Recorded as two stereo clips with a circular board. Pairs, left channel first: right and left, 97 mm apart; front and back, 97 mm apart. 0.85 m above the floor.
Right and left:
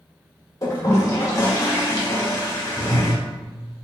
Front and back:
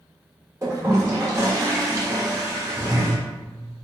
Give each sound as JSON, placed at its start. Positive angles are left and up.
{"t": 0.6, "sound": "a toilet flushing", "azimuth_deg": -135, "distance_m": 1.2}